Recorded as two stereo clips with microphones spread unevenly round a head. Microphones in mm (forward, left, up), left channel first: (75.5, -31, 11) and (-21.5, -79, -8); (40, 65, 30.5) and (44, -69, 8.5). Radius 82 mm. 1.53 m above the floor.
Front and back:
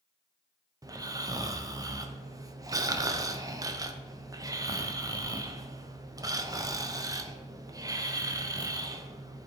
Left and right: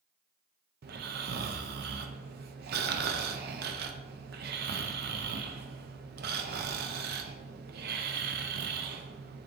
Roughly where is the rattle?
I don't hear a rattle.